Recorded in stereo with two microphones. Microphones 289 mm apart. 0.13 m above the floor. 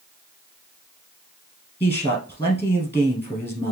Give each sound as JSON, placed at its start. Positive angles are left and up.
{"t": 1.8, "sound": "a man speaking", "side_deg": 20, "distance_m": 2.0}